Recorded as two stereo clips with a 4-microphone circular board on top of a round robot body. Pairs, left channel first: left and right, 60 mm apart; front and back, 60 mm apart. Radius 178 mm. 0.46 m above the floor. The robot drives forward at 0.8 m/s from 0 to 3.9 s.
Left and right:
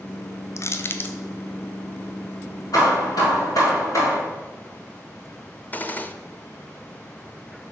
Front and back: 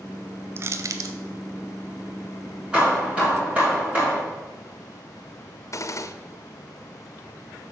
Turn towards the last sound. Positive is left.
turn(degrees=30)